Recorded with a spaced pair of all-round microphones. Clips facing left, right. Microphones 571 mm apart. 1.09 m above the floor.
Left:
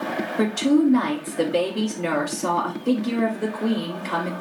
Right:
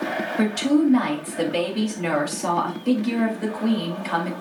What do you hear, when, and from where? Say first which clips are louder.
0.4 s a woman speaking: left 1 dB; 15° right (ahead or behind), 2.5 m